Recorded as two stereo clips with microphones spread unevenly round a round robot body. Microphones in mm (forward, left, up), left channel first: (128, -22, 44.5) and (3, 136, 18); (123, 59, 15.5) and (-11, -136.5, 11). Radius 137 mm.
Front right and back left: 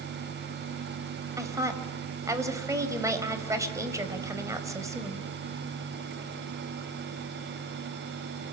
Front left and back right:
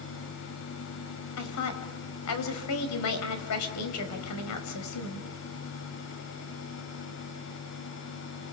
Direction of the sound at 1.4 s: 55° left.